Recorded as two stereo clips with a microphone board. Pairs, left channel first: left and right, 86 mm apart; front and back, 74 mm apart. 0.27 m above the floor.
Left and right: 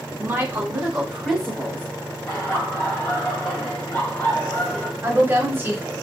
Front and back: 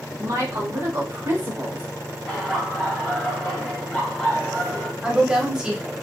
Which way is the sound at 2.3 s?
65° left.